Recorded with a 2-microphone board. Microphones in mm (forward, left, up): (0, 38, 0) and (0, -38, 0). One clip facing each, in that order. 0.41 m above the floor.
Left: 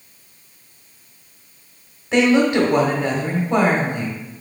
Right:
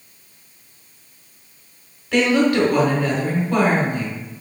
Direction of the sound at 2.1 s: 25° left (ahead or behind).